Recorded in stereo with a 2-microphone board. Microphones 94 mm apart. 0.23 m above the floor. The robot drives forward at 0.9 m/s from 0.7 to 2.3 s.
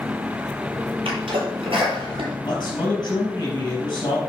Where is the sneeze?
80° right, 4.5 m; by 2.4 s 70° right (ahead or behind), 4.5 m.